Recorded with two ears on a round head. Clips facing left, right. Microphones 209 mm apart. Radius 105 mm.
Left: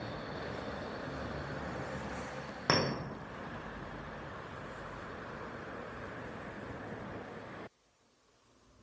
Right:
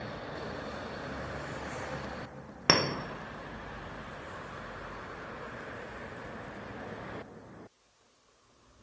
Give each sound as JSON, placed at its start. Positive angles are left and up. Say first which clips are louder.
{"t": 2.7, "sound": "a clink", "louder": "right 3 dB", "side_deg": -40, "distance_m": 0.5}